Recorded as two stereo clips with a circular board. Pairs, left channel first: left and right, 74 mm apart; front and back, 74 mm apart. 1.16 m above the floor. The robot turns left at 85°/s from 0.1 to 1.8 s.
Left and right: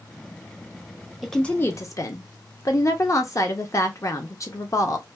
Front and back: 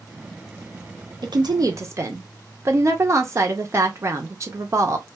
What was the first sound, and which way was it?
A woman speaking, straight behind.